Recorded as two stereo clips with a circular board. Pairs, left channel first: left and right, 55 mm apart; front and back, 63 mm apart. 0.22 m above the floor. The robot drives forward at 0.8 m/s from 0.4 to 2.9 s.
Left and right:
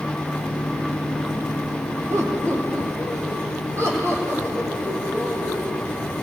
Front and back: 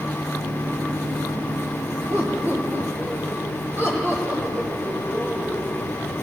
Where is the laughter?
125° right, 10 m.